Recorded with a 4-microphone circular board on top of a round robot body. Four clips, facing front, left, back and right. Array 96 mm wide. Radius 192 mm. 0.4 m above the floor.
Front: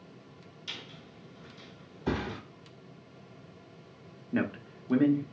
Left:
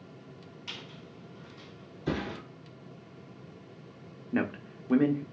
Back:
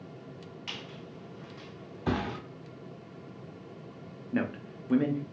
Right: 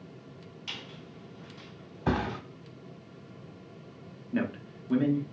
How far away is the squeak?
About 1.3 m.